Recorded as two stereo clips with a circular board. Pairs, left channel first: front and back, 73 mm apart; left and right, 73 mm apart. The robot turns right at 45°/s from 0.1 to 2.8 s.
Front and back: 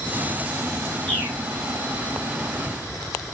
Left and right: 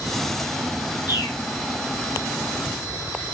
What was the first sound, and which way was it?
A bird, 80° left.